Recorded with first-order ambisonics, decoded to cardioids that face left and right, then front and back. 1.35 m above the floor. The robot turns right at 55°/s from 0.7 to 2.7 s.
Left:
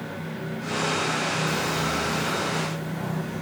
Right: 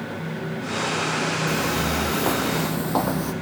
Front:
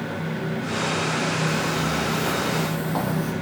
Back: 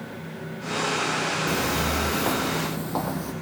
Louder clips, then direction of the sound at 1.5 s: Right 2 dB, front 1 dB; 145° right.